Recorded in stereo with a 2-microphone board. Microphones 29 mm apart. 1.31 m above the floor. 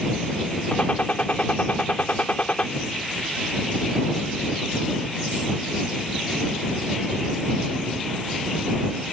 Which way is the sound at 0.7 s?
55° left (ahead or behind).